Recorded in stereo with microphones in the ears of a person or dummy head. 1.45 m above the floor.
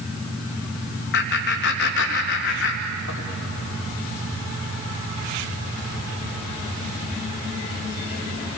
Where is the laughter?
55° left (ahead or behind), 2 m.